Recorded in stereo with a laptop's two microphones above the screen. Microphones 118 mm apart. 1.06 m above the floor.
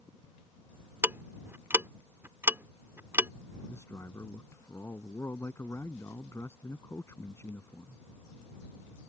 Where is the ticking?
20° right (ahead or behind).